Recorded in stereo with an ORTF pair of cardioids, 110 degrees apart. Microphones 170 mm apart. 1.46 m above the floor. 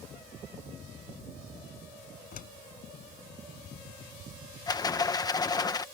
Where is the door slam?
60° left.